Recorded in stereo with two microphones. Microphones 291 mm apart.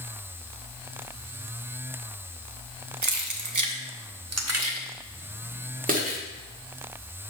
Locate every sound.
3.0 s keys jangling: 65° right (ahead or behind), 0.8 m; by 6.2 s 25° right (ahead or behind), 1.5 m